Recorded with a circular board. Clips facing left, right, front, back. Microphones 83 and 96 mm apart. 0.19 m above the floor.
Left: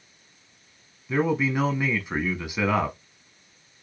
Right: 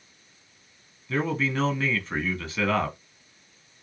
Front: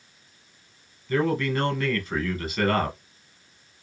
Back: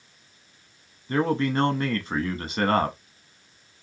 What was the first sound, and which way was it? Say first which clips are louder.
A man speaking: left 3 dB, back 1 dB; 155° left.